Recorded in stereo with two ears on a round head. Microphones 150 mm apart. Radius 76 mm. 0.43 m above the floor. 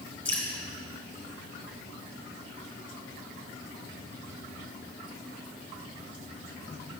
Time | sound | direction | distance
0.2 | dripping | 10° left (ahead or behind) | 2.5 m